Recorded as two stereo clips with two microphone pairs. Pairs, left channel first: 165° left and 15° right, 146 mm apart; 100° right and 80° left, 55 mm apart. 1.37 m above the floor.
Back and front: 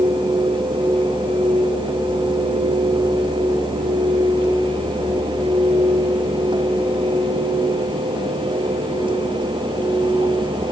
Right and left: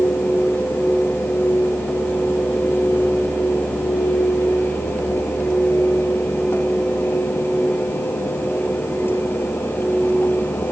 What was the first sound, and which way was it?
Only background noise.